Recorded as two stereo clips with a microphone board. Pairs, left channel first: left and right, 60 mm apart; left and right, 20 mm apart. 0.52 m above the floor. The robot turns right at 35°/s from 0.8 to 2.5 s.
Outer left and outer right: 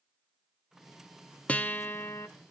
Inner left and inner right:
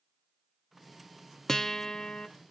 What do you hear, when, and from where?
1.5 s a guitar: 20° left (ahead or behind), 0.9 m; by 2.3 s 45° left (ahead or behind), 0.9 m